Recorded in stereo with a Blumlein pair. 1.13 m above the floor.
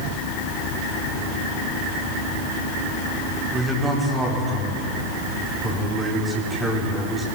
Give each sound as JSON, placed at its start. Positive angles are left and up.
{"t": 3.5, "sound": "a man speaking", "azimuth_deg": -10, "distance_m": 4.0}